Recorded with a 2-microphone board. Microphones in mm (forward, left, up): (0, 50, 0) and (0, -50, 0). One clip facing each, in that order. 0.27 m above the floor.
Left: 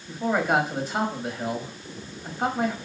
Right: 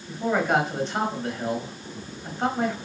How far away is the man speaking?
About 1.2 m.